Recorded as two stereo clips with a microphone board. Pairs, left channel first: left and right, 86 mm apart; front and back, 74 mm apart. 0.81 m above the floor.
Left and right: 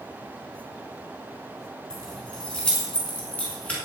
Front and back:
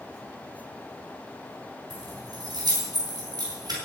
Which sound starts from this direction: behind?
Keys jangling, at 1.9 s.